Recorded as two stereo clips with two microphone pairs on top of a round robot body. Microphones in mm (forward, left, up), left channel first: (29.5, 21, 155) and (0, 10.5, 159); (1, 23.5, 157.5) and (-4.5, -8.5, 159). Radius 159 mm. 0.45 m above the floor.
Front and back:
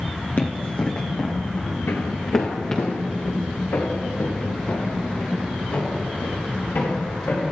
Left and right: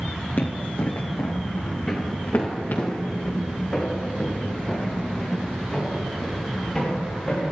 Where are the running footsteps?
55° left, 1.8 m; by 2.9 s 90° left, 4.5 m.